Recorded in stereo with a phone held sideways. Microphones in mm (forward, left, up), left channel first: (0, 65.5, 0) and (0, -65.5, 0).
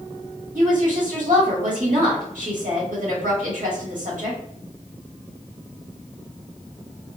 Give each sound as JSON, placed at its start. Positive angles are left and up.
{"t": 0.6, "sound": "a woman speaking", "side_deg": -70, "distance_m": 1.6}